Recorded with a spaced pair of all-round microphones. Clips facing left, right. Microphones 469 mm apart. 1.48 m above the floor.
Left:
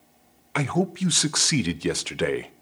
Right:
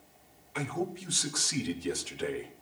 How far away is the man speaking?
About 0.8 m.